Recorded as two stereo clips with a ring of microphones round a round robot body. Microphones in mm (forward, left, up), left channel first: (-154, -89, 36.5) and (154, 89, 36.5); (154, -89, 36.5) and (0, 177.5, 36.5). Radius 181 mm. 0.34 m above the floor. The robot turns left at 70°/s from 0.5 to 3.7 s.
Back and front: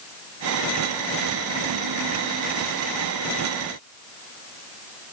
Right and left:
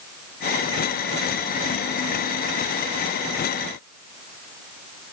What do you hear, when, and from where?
Only background noise.